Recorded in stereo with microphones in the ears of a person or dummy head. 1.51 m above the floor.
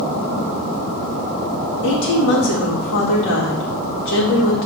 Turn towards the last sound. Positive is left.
turn(degrees=75)  # may be behind; listen again after turning